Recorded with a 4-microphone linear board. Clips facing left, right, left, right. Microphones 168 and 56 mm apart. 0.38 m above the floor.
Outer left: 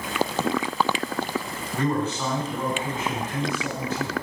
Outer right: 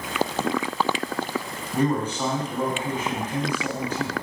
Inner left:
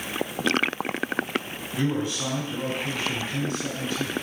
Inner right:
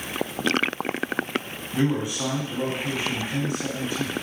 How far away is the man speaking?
About 2.5 m.